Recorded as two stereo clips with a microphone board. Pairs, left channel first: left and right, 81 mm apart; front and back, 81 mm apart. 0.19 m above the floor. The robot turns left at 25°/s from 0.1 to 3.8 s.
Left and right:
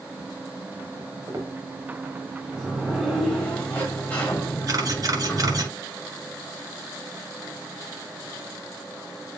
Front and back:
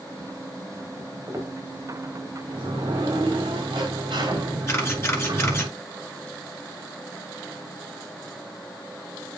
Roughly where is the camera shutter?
Ahead right.